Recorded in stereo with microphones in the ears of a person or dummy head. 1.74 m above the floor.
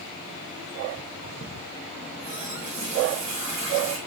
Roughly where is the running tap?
Right.